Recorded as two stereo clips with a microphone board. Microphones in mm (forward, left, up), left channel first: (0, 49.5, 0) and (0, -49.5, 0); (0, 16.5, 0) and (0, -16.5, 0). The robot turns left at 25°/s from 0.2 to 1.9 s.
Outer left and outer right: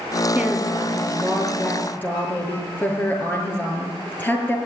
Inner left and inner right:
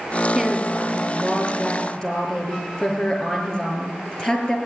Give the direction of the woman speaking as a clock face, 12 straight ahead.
5 o'clock.